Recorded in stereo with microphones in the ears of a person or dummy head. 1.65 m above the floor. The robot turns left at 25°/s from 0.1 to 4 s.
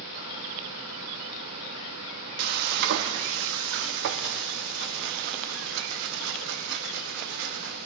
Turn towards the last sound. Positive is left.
turn(degrees=-100)